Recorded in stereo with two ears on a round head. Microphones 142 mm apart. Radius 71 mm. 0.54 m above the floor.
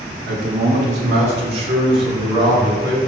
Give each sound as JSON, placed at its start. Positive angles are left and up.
{"t": 0.3, "sound": "a man speaking", "side_deg": -50, "distance_m": 1.7}